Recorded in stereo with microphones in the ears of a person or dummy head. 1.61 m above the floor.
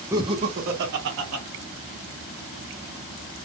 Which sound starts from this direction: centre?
Laughter, at 0.1 s.